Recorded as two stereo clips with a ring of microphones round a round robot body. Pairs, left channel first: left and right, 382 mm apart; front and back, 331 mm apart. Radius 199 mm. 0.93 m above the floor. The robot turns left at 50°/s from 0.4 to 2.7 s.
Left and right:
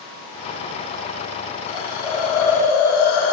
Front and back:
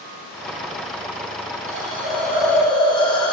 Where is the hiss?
130° left, 7 m; by 3.3 s 75° left, 7 m.